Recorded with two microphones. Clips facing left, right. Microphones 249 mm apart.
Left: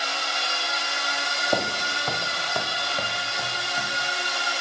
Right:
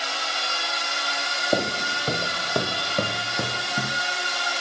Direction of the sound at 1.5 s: 20° right (ahead or behind).